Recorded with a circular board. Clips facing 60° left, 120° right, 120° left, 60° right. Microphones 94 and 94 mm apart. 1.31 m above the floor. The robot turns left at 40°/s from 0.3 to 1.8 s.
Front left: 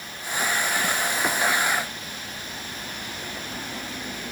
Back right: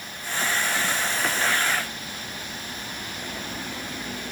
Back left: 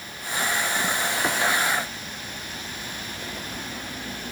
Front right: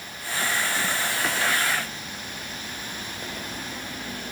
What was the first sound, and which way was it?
Only background noise.